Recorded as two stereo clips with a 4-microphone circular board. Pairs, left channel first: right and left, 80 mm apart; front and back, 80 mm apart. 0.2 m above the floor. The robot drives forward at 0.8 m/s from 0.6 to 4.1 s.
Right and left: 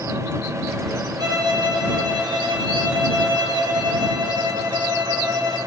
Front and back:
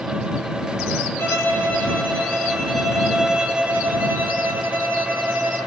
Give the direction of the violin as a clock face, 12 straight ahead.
10 o'clock.